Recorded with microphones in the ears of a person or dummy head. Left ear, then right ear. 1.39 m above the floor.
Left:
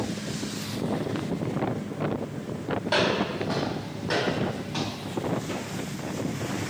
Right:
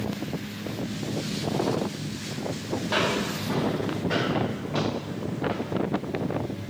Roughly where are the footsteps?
Centre.